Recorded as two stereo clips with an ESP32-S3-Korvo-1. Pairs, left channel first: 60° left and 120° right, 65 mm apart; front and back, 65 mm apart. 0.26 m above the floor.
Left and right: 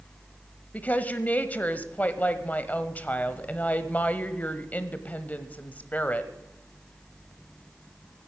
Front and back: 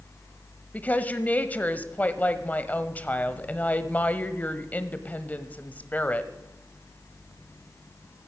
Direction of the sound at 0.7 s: 30° left.